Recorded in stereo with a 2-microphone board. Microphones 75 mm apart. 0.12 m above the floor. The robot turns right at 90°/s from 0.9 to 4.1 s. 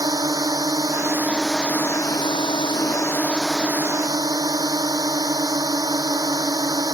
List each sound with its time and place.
0.0 s a drone: 55° right; by 7.0 s 125° right